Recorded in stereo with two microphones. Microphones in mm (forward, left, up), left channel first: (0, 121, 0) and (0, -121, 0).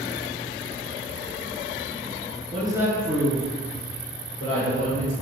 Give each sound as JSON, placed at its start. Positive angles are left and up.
{"t": 2.5, "sound": "a woman speaking", "side_deg": -25, "distance_m": 1.6}